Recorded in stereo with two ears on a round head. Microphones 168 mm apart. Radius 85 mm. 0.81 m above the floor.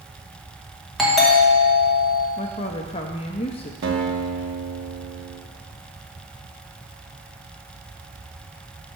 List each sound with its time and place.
1.0 s a doorbell: centre (ahead or behind), 1.3 m
2.4 s a woman speaking: 30° left (ahead or behind), 0.5 m
3.8 s a guitar: 70° right (ahead or behind), 1.2 m